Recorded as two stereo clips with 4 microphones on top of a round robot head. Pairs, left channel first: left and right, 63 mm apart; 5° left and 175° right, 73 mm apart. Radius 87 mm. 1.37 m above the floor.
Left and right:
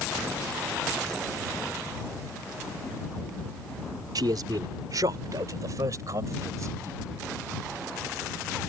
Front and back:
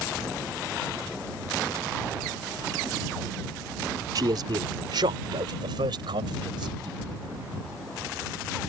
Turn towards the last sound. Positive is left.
turn(degrees=-145)